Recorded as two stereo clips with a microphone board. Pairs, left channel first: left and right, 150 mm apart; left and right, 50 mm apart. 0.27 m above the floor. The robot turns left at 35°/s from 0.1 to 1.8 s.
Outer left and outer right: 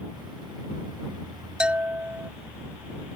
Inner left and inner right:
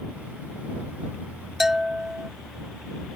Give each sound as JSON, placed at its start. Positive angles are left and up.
{"t": 1.6, "sound": "a bell", "side_deg": -5}